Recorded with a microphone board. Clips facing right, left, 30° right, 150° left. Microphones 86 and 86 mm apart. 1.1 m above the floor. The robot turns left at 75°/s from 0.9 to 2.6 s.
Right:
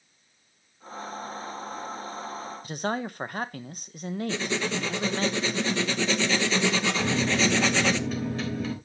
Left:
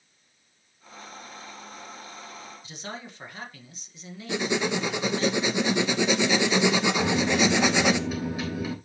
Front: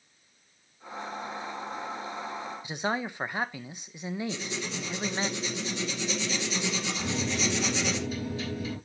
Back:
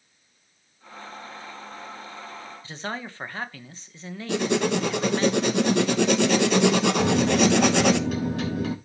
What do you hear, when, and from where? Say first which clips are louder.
2.6 s a man speaking: right 11 dB, front 3 dB; 100° right, 1.1 m
4.3 s writing: left 6 dB, back 13 dB; 165° left, 0.8 m
7.0 s a microwave: even, back 9 dB; 170° left, 3.5 m